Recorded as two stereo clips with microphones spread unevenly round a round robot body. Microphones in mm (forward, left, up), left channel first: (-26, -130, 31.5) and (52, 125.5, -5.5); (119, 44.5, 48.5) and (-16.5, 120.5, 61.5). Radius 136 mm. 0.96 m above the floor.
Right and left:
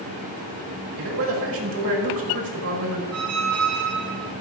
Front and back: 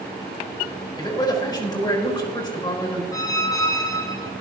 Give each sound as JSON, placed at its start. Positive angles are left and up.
{"t": 1.0, "sound": "a man speaking", "azimuth_deg": 35, "distance_m": 4.0}
{"t": 3.1, "sound": "a squeak", "azimuth_deg": 40, "distance_m": 1.4}